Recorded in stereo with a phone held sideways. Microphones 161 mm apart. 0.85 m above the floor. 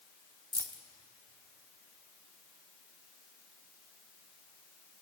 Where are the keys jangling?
25° right (ahead or behind), 1.6 m.